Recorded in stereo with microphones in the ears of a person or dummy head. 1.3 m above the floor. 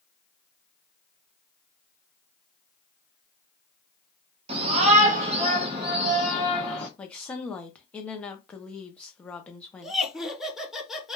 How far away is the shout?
About 0.8 m.